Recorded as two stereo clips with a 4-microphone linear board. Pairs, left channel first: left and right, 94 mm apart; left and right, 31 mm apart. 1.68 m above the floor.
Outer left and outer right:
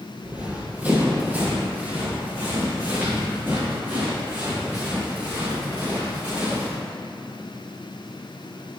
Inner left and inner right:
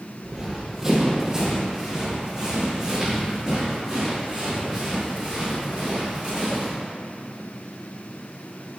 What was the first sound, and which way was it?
Running footsteps, 15° right (ahead or behind).